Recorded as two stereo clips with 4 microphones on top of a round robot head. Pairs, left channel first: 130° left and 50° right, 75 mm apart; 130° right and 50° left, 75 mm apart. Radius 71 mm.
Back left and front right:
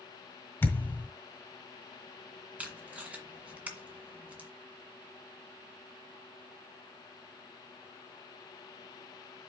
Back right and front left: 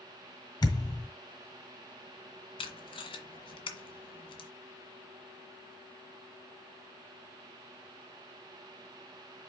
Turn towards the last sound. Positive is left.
turn(degrees=-125)